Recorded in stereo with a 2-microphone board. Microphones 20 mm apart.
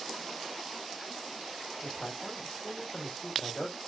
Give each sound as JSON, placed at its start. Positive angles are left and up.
{"t": 1.8, "sound": "a man speaking", "side_deg": 80, "distance_m": 1.9}